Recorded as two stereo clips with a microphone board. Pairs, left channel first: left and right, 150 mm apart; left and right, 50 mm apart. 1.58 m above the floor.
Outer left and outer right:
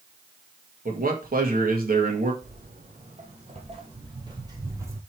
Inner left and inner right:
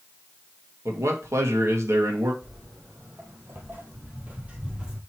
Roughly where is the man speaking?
Right.